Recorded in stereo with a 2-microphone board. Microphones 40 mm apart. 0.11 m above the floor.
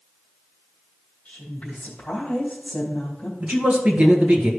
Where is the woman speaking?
35° left (ahead or behind), 3 m.